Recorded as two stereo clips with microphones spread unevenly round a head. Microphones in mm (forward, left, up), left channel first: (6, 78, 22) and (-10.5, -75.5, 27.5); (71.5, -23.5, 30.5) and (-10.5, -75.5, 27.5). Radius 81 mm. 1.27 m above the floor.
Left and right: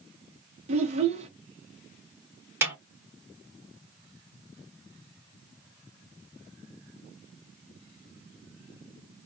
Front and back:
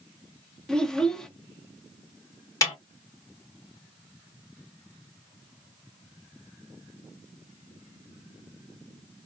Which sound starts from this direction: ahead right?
A child speaking, at 0.7 s.